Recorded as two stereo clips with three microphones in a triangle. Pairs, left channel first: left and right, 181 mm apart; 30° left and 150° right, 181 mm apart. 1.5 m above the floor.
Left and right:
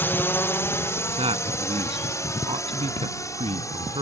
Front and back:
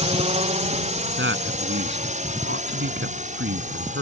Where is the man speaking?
150° right.